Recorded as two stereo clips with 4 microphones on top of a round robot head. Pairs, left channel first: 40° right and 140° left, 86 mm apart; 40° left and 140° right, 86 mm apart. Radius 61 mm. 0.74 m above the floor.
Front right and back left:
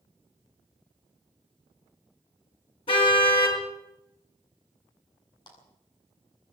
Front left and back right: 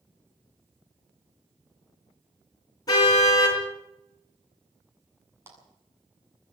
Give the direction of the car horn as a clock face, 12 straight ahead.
12 o'clock.